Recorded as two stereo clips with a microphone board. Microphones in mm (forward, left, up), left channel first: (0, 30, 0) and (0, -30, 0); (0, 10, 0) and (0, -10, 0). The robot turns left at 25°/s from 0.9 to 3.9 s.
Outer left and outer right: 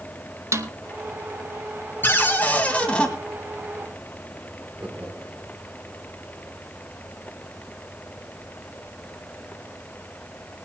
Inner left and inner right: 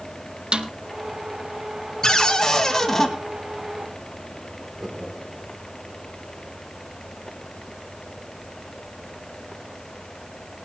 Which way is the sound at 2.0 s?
35° left (ahead or behind).